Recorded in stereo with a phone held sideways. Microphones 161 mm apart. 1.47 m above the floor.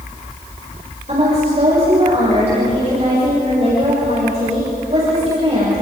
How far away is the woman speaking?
About 7.5 m.